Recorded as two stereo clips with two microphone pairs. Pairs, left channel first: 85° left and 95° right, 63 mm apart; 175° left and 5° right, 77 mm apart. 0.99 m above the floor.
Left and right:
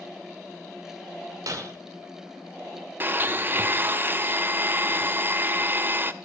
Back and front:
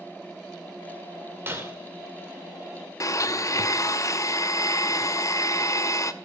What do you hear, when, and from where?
1.5 s breaking glass: 65° right, 2 m
3.0 s a blender: 145° right, 0.7 m